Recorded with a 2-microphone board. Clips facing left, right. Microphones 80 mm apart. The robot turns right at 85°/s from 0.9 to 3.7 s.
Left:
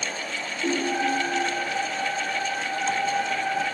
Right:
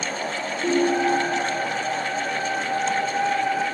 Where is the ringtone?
175° right, 3.5 m; by 1.4 s 135° right, 3.5 m.